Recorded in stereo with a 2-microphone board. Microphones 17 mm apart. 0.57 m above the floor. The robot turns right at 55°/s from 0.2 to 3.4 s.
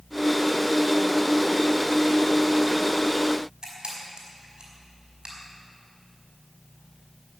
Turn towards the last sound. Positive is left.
turn(degrees=-60)  # may be behind; listen again after turning